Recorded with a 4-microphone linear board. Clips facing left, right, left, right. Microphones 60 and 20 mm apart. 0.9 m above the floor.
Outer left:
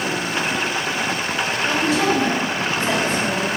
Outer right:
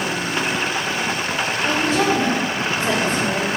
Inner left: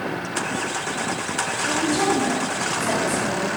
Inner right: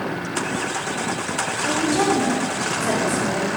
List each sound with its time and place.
1.6 s a woman speaking: 35° right (ahead or behind), 3 m